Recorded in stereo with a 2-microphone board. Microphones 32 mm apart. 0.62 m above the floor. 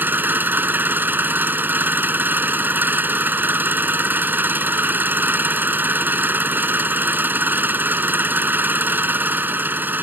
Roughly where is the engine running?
Right.